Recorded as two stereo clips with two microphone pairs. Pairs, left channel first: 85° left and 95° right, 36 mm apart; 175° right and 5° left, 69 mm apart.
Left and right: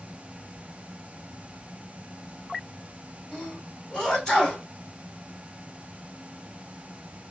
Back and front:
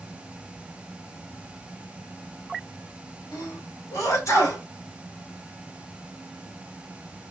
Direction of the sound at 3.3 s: 155° left.